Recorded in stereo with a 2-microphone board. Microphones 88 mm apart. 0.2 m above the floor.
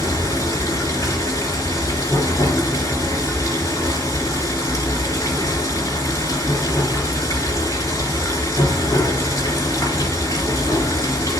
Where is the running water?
40° left (ahead or behind), 3 m.